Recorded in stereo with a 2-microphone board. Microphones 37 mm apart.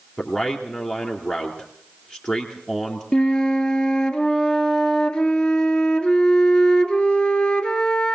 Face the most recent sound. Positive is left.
turn(degrees=25)  # may be behind; listen again after turning